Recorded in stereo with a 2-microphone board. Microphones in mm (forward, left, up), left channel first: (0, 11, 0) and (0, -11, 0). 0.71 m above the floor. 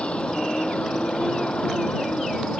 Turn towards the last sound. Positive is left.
turn(degrees=55)  # may be behind; listen again after turning